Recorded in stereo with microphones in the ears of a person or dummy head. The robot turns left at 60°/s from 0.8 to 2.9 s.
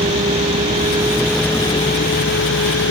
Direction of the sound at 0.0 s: 150° right.